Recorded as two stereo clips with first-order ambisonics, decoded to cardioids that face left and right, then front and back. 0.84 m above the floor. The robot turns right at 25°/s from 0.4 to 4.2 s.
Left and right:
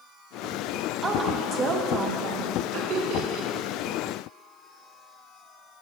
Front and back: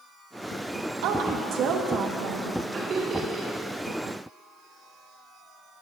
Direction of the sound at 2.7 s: 120° right.